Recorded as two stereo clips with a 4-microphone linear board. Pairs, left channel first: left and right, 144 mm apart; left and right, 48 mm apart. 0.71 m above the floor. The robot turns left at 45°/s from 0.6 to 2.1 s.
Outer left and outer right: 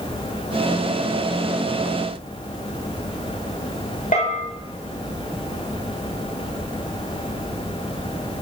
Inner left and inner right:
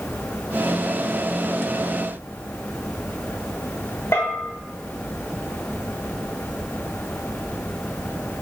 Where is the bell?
60° left (ahead or behind), 0.9 m.